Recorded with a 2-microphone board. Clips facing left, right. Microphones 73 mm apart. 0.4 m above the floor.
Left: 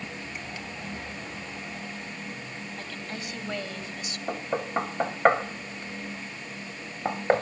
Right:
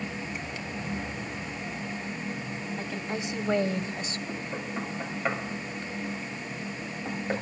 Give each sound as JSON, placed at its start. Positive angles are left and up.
{"t": 2.8, "sound": "a woman speaking", "side_deg": -15, "distance_m": 2.5}
{"t": 4.3, "sound": "knocking", "side_deg": 55, "distance_m": 1.4}